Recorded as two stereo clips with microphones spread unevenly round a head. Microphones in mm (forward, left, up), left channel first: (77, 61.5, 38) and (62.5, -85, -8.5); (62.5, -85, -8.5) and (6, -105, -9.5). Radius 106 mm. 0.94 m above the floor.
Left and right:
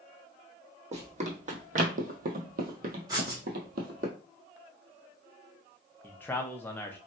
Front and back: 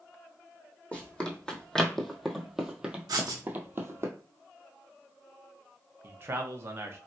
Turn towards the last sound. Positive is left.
turn(degrees=180)